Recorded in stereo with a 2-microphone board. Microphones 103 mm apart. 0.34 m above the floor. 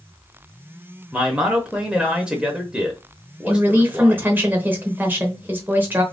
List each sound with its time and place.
1.1 s a man speaking: 10° right (ahead or behind), 0.8 m
3.5 s a woman speaking: 20° right (ahead or behind), 0.9 m